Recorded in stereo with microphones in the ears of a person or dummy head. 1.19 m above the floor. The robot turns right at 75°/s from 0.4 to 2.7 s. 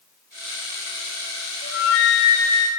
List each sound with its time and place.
1.6 s a flute: 65° left, 0.6 m; by 2.7 s 145° left, 0.6 m